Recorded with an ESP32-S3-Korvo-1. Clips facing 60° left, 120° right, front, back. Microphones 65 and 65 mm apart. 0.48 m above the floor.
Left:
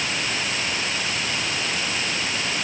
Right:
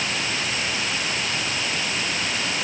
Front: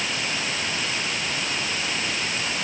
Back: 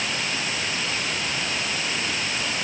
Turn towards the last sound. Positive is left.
No sound to turn to.